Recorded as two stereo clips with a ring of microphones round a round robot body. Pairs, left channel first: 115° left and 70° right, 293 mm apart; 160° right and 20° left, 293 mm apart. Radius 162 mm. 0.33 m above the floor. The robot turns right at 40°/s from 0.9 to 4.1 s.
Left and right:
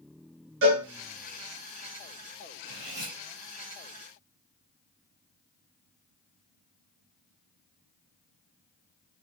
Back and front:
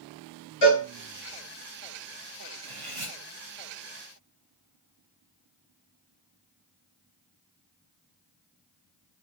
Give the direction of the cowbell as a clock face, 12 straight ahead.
4 o'clock.